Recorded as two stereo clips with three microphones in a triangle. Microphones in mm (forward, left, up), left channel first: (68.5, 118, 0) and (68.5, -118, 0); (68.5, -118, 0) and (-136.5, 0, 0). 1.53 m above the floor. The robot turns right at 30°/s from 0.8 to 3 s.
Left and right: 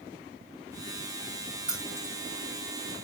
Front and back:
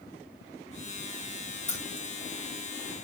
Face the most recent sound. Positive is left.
turn(degrees=35)